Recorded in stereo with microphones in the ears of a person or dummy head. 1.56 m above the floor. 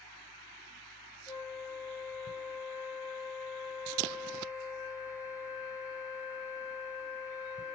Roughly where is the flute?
Centre.